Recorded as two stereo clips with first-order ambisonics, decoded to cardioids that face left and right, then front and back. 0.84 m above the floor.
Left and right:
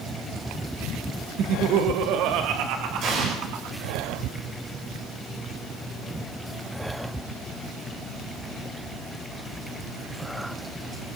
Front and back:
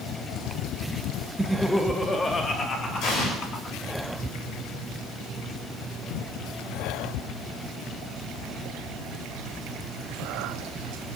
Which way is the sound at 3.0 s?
40° right.